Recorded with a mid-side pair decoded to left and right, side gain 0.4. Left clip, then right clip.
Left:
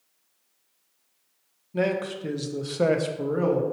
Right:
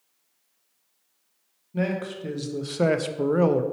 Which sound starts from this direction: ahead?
A man speaking, at 1.7 s.